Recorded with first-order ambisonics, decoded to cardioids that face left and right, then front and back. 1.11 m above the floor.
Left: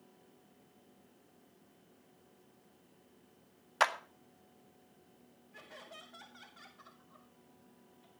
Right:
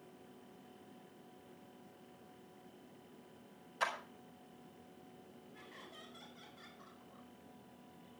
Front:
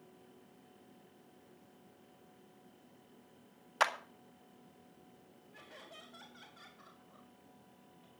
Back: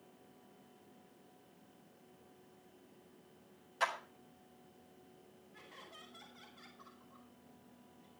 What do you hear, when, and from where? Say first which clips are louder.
3.8 s a clap: left 8 dB, front 4 dB; 50° left, 1.7 m
5.5 s laughter: left 4 dB, front 1 dB; 55° left, 8.5 m